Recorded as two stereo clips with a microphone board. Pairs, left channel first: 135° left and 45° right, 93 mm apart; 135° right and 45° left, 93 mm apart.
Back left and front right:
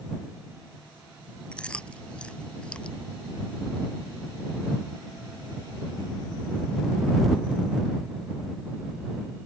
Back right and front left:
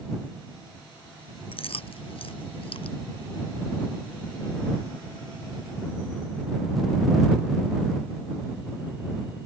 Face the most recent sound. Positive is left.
turn(degrees=-145)